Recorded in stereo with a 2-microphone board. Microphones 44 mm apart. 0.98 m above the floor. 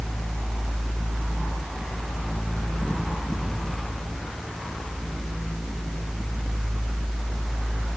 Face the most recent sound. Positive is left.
No sound to turn to.